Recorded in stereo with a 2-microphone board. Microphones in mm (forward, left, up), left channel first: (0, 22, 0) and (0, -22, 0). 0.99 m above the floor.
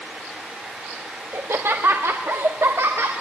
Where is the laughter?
60° right (ahead or behind), 1.4 m; by 3.1 s 80° right, 2.5 m.